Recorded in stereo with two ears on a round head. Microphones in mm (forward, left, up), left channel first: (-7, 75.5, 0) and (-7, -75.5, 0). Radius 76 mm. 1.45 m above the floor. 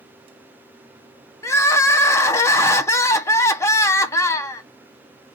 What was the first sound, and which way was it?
Crying, 15° left (ahead or behind).